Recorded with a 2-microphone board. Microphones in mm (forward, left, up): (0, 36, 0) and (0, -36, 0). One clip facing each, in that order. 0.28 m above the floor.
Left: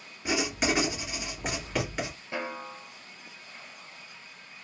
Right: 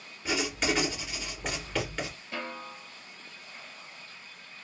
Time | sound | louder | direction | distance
0.2 | writing | left 2 dB | 15° left (ahead or behind) | 2.5 m
2.3 | a snare drum | left 4 dB | 20° left (ahead or behind) | 0.7 m